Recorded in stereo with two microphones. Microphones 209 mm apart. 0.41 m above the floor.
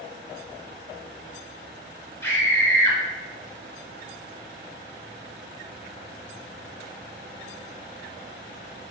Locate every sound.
2.2 s a scream: 10° left (ahead or behind), 1.5 m